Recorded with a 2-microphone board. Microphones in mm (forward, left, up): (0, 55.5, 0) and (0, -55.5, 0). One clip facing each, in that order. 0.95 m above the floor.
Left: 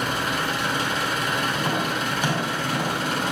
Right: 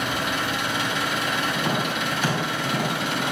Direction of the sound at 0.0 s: 40° left (ahead or behind).